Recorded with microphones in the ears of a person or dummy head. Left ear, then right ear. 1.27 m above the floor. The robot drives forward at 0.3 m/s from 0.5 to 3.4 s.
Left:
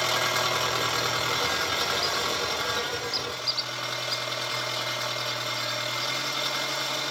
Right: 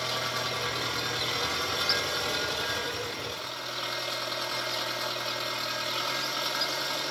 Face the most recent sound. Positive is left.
turn(degrees=20)  # may be behind; listen again after turning